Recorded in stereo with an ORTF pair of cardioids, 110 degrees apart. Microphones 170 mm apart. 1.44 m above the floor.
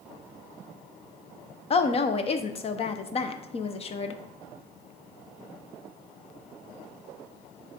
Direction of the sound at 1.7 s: 35° left.